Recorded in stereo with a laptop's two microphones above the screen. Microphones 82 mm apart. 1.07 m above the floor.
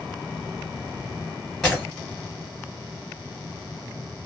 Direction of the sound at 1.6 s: 10° left (ahead or behind).